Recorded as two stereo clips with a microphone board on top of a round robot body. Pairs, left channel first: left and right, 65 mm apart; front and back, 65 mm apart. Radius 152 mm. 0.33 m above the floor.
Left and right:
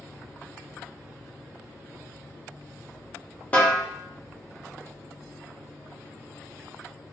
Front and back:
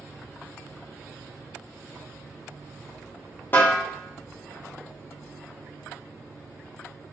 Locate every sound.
3.5 s a snare drum: 35° left, 1.3 m